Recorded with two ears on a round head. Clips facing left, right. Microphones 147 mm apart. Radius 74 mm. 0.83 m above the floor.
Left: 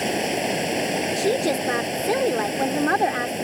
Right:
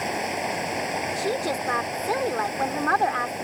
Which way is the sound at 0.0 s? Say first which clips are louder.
Left 4 dB; 30° left (ahead or behind).